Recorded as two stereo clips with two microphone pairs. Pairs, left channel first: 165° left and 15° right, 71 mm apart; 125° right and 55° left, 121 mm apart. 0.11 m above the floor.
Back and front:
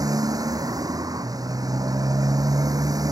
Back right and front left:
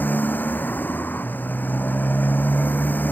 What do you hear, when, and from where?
0.0 s a motorcycle: 50° right